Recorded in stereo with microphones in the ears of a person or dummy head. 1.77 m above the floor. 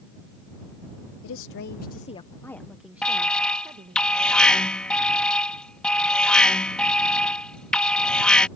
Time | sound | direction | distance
1.2 | a woman speaking | 70° left (ahead or behind) | ?
3.0 | an alarm | centre (ahead or behind) | ?